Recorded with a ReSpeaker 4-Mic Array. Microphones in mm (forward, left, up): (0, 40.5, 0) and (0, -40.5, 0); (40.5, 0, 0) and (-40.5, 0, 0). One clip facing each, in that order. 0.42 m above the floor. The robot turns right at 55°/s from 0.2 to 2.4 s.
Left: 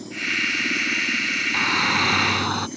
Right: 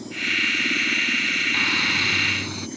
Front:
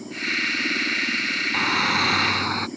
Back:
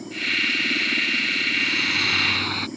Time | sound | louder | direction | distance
1.5 | a shout | left 6 dB, front 9 dB | 20° left | ?